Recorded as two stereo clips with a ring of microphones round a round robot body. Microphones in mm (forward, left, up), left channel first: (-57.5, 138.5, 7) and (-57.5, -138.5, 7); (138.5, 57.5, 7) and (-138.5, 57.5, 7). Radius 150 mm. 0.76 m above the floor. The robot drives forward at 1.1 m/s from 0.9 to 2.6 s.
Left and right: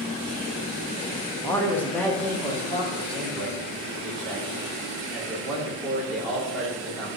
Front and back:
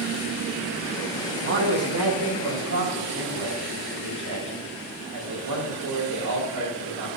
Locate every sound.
1.4 s a man speaking: 165° left, 0.9 m; by 7.2 s 175° left, 2.0 m